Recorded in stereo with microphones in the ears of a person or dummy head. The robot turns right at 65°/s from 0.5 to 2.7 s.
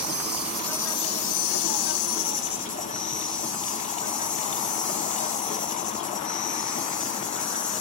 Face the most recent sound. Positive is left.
turn(degrees=140)